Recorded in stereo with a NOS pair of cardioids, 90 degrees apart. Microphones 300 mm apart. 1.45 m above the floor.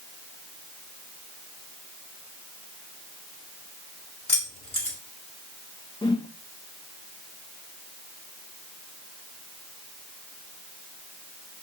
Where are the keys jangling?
20° left, 4.5 m.